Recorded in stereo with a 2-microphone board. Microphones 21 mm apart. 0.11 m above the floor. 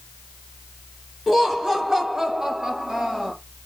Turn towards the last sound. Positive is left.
turn(degrees=-30)  # may be behind; listen again after turning